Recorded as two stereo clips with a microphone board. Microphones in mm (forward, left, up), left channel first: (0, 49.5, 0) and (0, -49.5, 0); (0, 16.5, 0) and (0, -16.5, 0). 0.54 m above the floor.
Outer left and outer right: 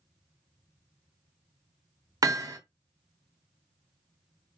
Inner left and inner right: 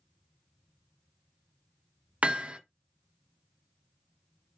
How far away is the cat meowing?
I don't hear a cat meowing.